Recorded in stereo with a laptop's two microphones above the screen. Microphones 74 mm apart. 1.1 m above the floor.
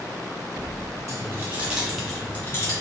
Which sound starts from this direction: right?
Keys jangling, at 1.1 s.